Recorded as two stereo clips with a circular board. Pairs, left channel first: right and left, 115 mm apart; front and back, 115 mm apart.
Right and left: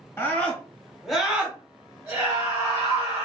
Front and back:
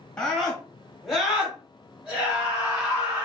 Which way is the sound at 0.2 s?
70° right.